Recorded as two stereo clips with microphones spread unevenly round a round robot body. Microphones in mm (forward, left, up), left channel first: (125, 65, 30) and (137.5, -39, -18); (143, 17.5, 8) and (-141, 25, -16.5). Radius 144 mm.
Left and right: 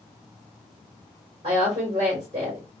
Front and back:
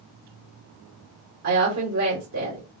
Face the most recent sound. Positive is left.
turn(degrees=-145)